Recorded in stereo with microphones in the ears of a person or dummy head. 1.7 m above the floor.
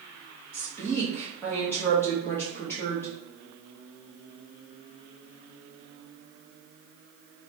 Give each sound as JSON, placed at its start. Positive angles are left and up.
{"t": 0.5, "sound": "a woman speaking", "side_deg": 15, "distance_m": 0.9}